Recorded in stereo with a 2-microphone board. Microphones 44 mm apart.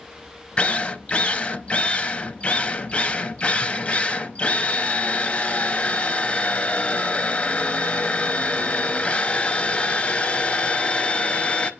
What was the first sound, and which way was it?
A drill, 30° left (ahead or behind).